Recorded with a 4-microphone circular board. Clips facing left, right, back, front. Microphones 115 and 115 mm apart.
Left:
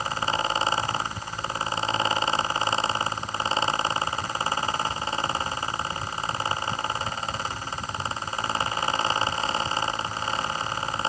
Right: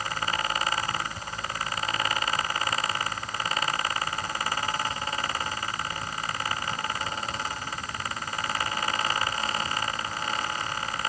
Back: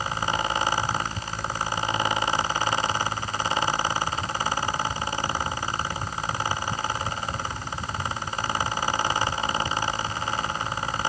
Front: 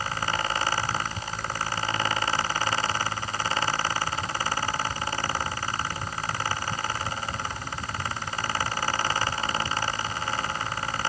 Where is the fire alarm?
I don't hear a fire alarm.